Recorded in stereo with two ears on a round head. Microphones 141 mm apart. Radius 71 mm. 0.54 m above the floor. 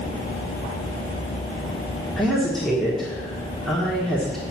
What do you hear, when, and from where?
2.2 s a woman speaking: centre (ahead or behind), 1.6 m